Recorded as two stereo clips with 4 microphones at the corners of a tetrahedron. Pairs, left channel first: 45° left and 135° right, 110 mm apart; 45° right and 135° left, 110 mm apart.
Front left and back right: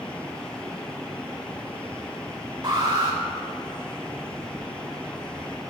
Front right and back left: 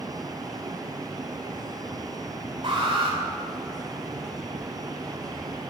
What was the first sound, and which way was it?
An alarm, 175° left.